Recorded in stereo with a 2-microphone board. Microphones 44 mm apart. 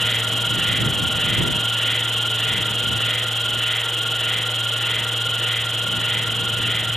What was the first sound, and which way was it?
An insect, 5° left (ahead or behind).